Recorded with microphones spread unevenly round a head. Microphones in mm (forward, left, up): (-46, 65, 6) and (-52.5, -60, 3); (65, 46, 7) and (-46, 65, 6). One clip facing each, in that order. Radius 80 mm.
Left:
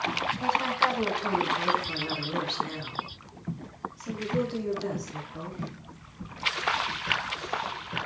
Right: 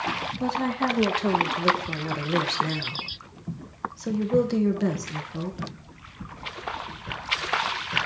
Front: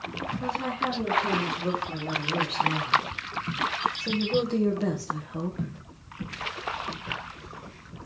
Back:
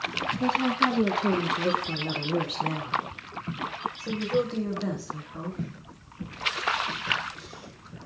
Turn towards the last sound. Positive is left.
turn(degrees=-55)